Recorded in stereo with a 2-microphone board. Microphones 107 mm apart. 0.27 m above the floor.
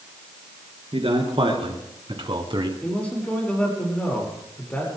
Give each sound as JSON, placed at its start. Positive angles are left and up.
{"t": 0.9, "sound": "a man speaking", "side_deg": -60, "distance_m": 4.0}
{"t": 2.8, "sound": "a man speaking", "side_deg": 10, "distance_m": 6.5}